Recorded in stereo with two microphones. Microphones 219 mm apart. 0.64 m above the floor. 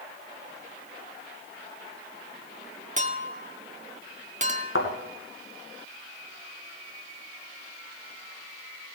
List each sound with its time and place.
3.0 s a clink: 30° right (ahead or behind), 0.8 m
4.8 s a thud: 65° left (ahead or behind), 2.0 m